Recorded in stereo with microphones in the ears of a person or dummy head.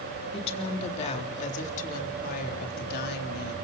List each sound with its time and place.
0.3 s a woman speaking: 30° left (ahead or behind), 3.5 m; by 3.5 s 60° left (ahead or behind), 3.5 m